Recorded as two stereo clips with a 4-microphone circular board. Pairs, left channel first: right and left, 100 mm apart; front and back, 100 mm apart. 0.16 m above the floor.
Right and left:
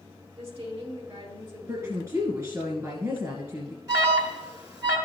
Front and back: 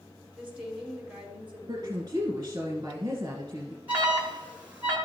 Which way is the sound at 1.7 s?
135° left.